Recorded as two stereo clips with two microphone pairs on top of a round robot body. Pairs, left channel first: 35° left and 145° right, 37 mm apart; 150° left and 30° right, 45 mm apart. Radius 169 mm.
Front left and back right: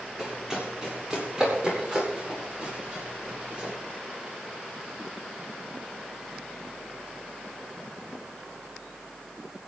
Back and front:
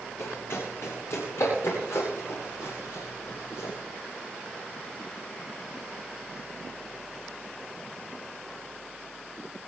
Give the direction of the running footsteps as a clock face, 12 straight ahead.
7 o'clock.